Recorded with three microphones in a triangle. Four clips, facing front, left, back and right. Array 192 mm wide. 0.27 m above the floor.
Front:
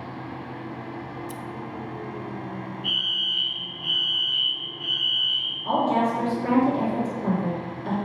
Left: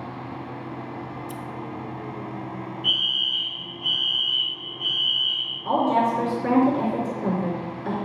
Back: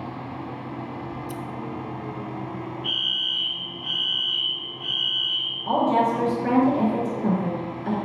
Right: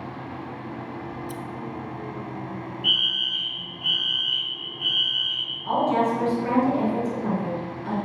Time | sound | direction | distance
1.1 | scissors | 170° right | 0.5 m
2.8 | a fire alarm | 85° left | 2.5 m
5.7 | a woman speaking | 70° left | 4 m